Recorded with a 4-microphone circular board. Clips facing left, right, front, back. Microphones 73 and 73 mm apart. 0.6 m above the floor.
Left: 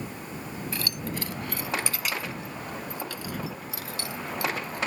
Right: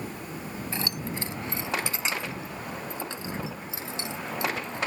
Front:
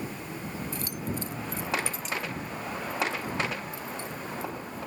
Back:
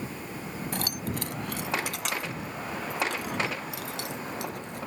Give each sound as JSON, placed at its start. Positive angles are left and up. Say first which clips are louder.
{"t": 0.7, "sound": "keys jangling", "louder": "right 1 dB, back 4 dB", "azimuth_deg": -155}